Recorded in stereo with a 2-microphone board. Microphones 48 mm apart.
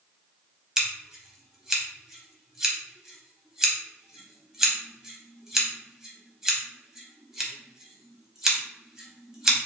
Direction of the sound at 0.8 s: 10° right (ahead or behind).